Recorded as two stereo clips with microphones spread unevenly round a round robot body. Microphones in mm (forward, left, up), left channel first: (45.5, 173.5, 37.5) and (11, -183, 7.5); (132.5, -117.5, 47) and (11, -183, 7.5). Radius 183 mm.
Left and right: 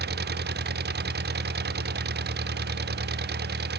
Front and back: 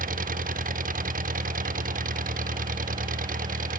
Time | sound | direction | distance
0.0 | an engine running | 160° right | ?